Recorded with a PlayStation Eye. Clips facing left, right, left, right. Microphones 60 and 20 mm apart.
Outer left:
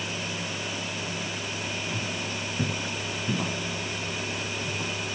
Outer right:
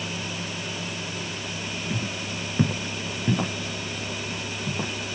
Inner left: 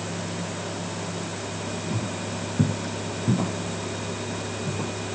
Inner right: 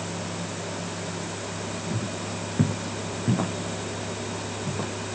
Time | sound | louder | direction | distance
1.9 | footsteps | outer right 1 dB, inner left 1 dB | 25° right (ahead or behind) | 2.5 m